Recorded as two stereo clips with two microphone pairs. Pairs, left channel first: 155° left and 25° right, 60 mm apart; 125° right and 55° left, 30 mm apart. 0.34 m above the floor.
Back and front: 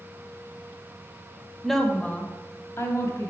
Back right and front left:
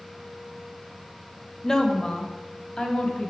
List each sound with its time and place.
1.6 s a woman speaking: 115° right, 0.9 m; by 3.3 s 175° right, 2 m